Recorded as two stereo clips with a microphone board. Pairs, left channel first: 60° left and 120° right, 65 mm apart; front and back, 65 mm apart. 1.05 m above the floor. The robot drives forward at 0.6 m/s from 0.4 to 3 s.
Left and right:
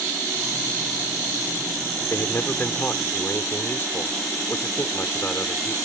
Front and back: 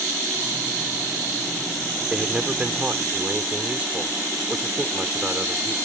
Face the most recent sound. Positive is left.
turn(degrees=115)